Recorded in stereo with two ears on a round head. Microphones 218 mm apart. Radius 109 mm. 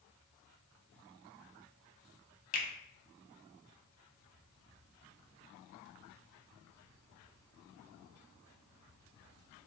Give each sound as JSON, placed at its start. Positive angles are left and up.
{"t": 2.5, "sound": "a finger snap", "side_deg": 35, "distance_m": 0.6}